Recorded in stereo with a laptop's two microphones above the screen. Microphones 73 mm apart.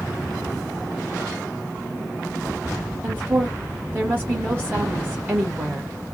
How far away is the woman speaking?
About 1.2 m.